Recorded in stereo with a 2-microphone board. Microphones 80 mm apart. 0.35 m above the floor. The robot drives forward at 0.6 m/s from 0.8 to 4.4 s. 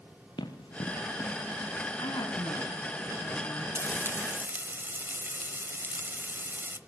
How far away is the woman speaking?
About 3 m.